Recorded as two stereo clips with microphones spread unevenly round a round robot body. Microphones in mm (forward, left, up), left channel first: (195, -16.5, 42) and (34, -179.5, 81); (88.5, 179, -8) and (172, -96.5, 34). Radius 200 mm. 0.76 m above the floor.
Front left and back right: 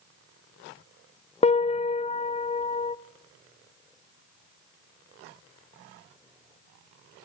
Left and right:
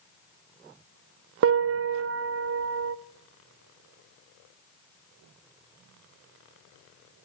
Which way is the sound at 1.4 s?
25° right.